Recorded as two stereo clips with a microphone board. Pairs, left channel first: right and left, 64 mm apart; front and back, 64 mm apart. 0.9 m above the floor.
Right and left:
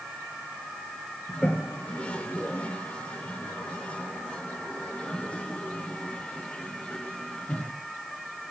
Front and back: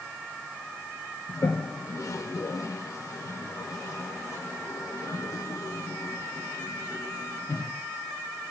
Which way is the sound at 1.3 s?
20° right.